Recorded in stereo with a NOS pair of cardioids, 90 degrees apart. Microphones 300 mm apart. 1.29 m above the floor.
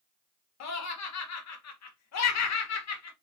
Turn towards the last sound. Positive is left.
turn(degrees=60)